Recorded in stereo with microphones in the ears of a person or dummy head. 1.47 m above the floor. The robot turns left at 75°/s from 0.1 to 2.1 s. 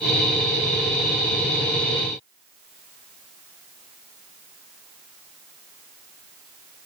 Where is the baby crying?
No baby crying in this recording.